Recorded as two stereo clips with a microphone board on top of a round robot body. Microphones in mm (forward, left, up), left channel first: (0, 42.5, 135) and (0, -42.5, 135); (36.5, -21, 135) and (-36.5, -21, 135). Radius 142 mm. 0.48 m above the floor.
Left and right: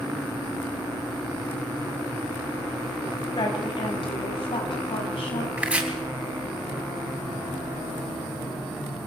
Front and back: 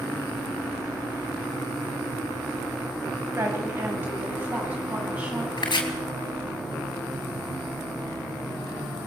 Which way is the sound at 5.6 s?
15° right.